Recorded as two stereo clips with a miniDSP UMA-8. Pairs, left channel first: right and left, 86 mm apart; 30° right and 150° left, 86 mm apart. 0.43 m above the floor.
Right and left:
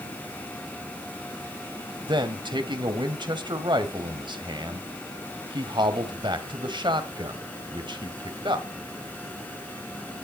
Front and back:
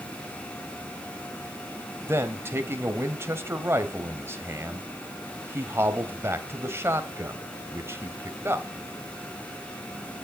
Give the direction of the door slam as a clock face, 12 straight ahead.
No door slam in this recording.